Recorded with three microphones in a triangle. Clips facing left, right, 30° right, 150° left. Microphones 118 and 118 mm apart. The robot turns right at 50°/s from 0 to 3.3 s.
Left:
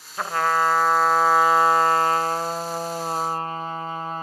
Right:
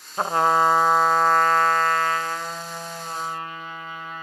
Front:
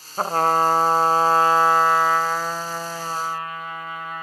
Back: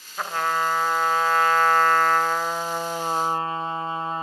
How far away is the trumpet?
About 0.8 m.